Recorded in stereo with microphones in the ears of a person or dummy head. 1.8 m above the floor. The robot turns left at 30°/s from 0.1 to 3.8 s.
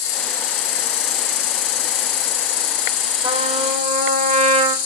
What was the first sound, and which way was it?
An insect, 125° left.